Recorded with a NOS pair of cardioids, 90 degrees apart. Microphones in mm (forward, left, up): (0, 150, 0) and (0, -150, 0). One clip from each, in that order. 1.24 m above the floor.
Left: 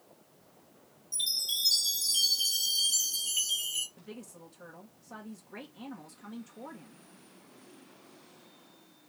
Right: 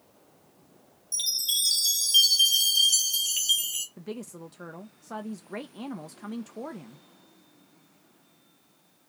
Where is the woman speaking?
55° right, 0.8 m.